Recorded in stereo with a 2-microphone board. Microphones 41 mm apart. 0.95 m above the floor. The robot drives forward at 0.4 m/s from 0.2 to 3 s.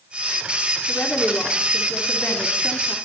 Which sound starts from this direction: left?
A woman speaking, at 0.9 s.